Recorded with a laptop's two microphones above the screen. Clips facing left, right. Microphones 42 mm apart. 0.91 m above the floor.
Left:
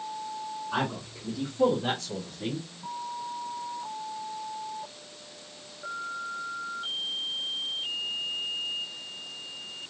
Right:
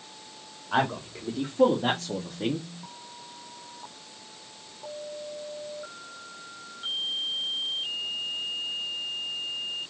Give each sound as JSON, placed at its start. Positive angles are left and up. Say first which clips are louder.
{"t": 0.7, "sound": "a man speaking", "louder": "right 6 dB", "side_deg": -65, "distance_m": 1.9}